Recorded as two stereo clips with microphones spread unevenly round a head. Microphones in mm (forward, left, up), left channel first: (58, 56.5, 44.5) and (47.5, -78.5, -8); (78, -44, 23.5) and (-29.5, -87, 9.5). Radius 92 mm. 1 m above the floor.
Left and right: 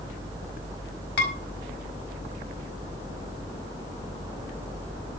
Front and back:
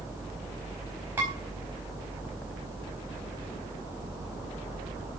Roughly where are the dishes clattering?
Behind left.